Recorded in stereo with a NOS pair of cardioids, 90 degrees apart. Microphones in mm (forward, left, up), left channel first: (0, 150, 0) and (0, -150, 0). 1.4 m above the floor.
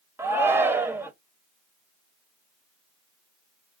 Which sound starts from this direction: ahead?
A shout, at 0.2 s.